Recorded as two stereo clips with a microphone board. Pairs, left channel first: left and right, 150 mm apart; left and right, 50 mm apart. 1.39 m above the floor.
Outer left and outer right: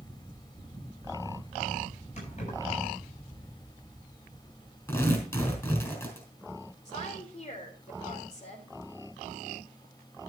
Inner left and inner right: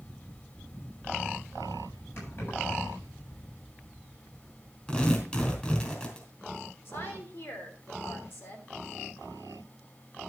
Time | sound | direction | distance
2.2 | keys jangling | 50° left (ahead or behind) | 7.5 m
4.9 | tearing paper | 20° left (ahead or behind) | 4 m
6.8 | a woman speaking | 50° left (ahead or behind) | 3.5 m